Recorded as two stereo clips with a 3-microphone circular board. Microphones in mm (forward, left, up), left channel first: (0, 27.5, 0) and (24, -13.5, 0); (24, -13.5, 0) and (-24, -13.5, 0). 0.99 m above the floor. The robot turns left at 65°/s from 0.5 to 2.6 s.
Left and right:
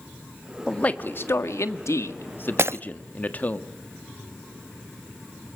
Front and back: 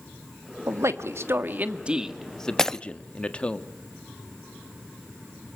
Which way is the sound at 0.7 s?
170° right.